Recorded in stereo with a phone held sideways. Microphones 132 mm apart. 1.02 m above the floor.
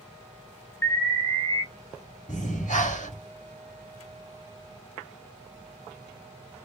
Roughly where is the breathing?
Left.